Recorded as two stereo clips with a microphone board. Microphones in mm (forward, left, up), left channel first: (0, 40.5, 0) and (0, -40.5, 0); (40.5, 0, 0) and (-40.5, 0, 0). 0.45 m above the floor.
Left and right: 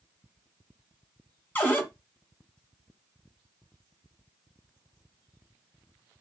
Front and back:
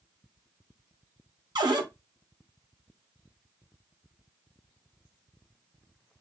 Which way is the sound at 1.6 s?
155° left.